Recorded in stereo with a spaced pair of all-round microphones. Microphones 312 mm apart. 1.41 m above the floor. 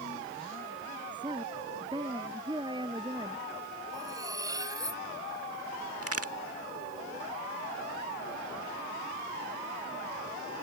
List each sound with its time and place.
1.1 s a woman speaking: 15° right (ahead or behind)
3.9 s cutlery clinking: 10° right (ahead or behind)
6.0 s a crack: 50° right (ahead or behind)